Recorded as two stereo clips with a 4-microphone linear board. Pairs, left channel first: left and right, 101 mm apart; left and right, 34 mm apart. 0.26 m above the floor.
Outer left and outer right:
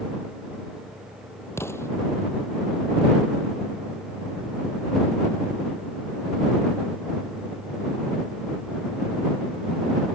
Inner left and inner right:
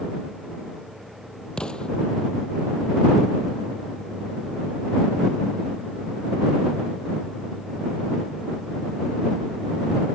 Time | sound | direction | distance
1.6 | an explosion | 25° left (ahead or behind) | ?